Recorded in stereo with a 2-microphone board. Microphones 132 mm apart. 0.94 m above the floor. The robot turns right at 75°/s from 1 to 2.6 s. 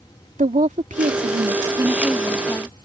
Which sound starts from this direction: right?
A woman speaking, at 0.4 s.